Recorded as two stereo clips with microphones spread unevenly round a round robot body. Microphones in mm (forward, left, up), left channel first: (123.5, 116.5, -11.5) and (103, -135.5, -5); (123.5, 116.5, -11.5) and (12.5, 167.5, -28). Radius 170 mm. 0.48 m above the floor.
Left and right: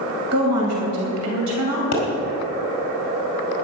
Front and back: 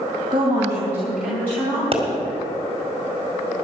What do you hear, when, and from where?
0.3 s a woman speaking: 140° right, 3 m; by 1.8 s 105° right, 3 m
1.9 s a pop: 120° left, 2 m